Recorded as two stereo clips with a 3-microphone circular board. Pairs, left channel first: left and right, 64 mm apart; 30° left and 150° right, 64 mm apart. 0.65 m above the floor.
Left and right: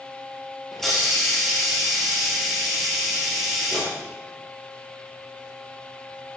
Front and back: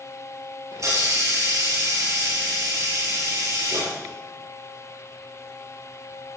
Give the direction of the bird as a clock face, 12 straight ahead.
I don't hear a bird.